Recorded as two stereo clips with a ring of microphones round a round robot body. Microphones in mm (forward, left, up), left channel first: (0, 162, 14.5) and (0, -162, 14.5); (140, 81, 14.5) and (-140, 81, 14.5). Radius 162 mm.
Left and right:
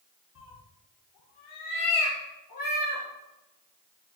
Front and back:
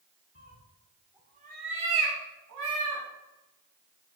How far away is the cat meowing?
About 0.9 m.